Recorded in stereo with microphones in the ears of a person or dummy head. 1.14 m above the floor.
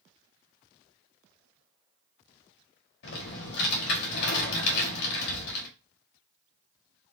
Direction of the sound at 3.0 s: 65° left (ahead or behind).